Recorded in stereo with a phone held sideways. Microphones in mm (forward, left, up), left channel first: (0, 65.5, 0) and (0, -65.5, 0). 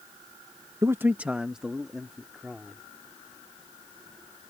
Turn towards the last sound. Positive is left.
turn(degrees=0)  # may be behind; listen again after turning